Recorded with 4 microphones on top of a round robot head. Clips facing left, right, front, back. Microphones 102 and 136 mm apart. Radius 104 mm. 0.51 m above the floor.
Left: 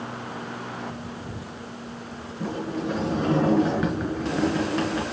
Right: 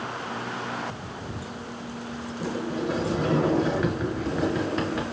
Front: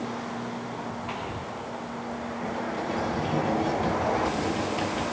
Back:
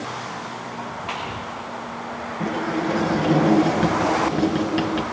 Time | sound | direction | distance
2.4 | a sliding door | straight behind | 4.5 m